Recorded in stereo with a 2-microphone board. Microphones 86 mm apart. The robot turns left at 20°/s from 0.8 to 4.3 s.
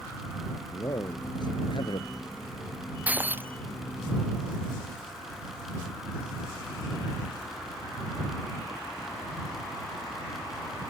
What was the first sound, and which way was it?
A man speaking, 45° left (ahead or behind).